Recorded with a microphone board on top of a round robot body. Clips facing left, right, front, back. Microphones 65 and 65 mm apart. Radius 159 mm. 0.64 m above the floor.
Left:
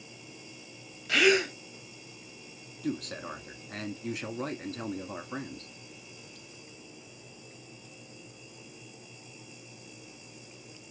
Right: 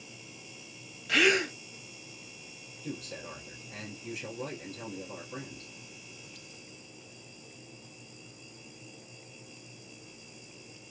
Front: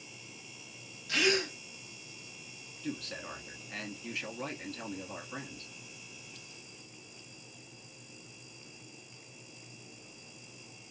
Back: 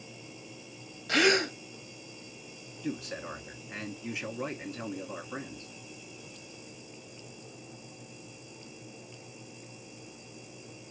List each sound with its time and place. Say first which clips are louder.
1.1 s a gasp: left 2 dB, back 5 dB; straight behind, 0.9 m
2.8 s a man speaking: left 6 dB, back 3 dB; 105° left, 1.5 m